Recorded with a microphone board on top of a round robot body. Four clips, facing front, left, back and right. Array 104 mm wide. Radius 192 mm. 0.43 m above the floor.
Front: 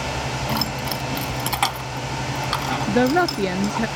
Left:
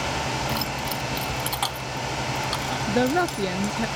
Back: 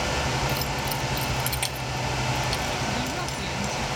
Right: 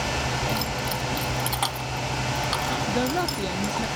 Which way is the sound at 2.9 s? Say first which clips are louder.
Left 6 dB, front 12 dB; 15° left.